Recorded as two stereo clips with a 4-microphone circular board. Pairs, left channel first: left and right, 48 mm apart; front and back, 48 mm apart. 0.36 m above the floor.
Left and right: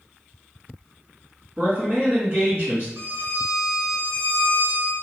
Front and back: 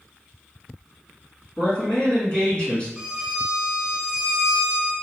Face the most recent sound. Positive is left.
turn(degrees=-100)